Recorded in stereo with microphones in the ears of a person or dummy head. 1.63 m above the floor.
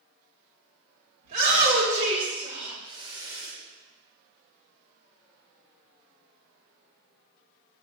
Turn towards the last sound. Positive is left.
turn(degrees=-15)  # may be behind; listen again after turning